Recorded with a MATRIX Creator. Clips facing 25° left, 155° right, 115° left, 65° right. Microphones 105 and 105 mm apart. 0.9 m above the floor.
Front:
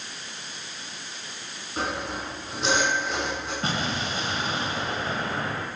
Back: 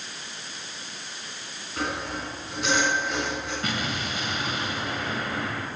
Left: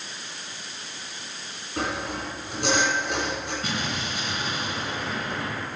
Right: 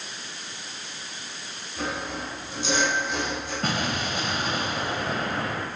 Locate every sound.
1.8 s sawing: 85° left, 6 m
3.6 s an explosion: 35° right, 2.0 m